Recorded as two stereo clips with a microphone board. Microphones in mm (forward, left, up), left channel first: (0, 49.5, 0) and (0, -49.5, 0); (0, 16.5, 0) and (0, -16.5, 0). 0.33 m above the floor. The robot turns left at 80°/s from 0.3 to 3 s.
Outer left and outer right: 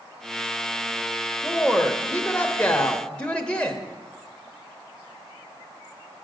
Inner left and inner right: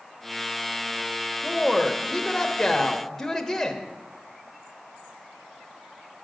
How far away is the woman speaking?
About 0.8 m.